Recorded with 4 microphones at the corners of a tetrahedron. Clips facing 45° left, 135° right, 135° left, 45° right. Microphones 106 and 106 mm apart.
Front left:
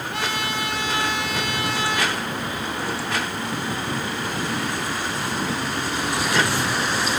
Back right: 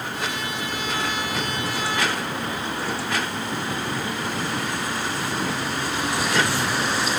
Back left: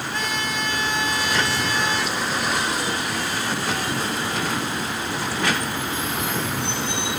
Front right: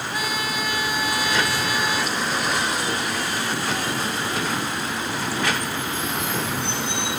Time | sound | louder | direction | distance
0.1 | a trumpet | front left 2 dB, even | 35° left | 7 m